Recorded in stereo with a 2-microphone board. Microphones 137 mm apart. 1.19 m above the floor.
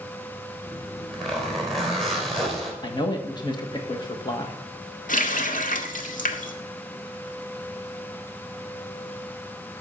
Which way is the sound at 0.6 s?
Centre (ahead or behind).